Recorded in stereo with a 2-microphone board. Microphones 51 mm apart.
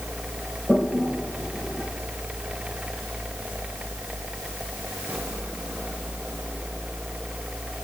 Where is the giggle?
No giggle in this recording.